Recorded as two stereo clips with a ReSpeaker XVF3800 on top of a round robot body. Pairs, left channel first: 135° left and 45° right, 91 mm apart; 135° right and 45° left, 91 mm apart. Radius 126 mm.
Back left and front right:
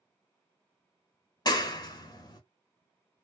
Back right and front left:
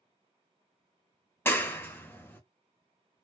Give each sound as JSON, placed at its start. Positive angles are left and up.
{"t": 1.4, "sound": "a clap", "azimuth_deg": 165, "distance_m": 0.9}